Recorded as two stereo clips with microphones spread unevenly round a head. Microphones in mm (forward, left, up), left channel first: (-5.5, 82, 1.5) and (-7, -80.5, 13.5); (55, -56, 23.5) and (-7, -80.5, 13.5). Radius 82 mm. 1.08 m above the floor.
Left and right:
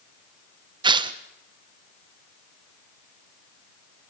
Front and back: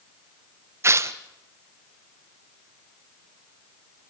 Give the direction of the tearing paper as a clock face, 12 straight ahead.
5 o'clock.